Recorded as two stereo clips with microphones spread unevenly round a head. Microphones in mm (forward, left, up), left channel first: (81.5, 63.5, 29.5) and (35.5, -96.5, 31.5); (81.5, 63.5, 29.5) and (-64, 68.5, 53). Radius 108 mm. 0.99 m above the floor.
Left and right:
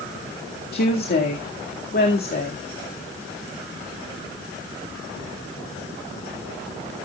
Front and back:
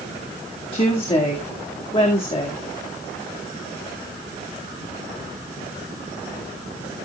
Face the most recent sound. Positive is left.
turn(degrees=50)